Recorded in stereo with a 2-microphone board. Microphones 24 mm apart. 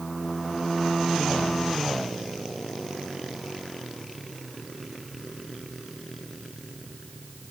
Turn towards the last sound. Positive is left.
No sound to turn to.